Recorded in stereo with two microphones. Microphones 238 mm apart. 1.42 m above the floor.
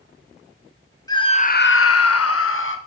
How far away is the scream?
About 0.7 m.